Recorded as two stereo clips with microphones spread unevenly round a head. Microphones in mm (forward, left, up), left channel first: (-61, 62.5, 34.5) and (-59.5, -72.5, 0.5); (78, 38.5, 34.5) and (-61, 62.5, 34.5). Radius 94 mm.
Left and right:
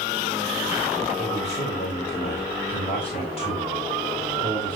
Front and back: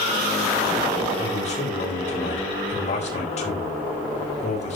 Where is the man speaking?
30° left, 4 m.